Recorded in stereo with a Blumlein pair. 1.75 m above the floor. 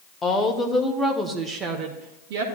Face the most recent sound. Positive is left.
turn(degrees=-45)